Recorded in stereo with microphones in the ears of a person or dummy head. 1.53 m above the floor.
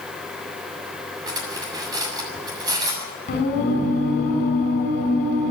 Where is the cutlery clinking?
25° right (ahead or behind), 7 m.